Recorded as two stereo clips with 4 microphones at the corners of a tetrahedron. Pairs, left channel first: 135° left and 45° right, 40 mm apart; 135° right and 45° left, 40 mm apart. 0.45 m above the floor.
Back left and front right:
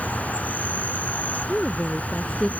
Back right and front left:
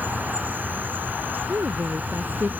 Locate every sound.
0.0 s an insect: 85° left
1.5 s a woman speaking: 60° left